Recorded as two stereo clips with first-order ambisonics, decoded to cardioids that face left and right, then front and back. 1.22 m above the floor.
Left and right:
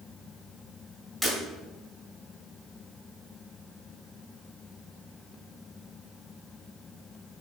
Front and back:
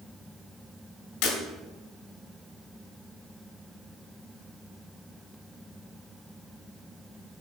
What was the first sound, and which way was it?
Breaking glass, 5° left.